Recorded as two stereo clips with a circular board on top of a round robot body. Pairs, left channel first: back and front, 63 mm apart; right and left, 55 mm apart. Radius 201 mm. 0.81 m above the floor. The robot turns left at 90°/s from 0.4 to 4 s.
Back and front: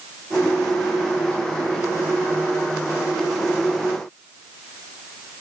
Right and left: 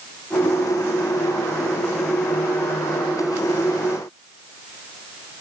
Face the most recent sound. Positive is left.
No sound to turn to.